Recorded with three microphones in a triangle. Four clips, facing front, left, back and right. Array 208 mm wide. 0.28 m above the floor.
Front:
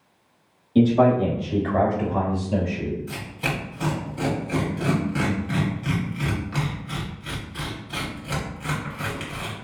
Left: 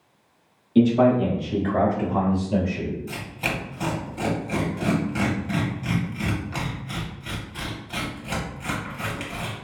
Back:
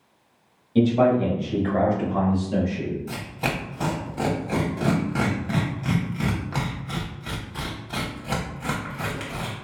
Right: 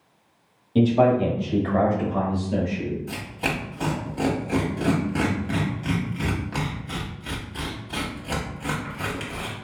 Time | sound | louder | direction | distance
0.8 | a man speaking | left 1 dB, front 1 dB | 90° right | 1.4 m
3.1 | tearing paper | right 1 dB, back 1 dB | 160° right | 1.2 m